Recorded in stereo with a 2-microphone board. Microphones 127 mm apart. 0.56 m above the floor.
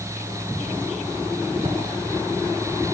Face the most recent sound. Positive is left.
turn(degrees=-50)  # may be behind; listen again after turning